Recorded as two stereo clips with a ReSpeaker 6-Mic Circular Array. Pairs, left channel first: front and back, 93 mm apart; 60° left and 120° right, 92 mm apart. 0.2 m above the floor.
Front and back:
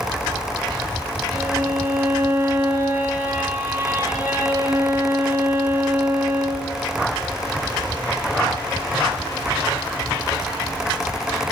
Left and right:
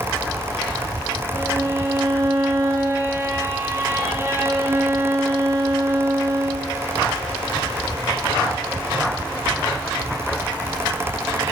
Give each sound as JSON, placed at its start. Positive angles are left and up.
{"t": 1.3, "sound": "a violin", "azimuth_deg": -140, "distance_m": 1.4}